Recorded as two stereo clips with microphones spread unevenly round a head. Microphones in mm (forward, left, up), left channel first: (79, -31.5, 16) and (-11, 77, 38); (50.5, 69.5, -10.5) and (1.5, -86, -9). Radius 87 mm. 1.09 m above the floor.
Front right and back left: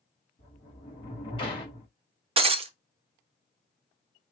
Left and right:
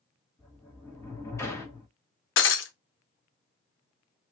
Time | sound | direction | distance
0.4 | a sliding door | straight ahead | 1.9 m
2.4 | breaking glass | 80° left | 0.8 m